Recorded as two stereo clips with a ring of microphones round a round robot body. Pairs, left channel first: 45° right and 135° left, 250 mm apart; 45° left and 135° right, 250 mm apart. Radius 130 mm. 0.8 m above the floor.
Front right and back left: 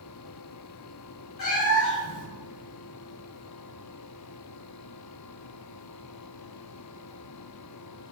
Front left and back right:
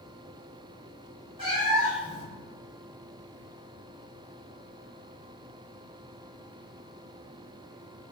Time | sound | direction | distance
1.4 | a cat meowing | 65° right | 1.5 m